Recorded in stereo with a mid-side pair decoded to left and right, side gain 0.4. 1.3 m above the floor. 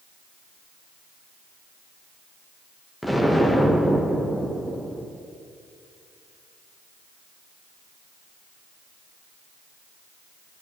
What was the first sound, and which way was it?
An explosion, 10° left.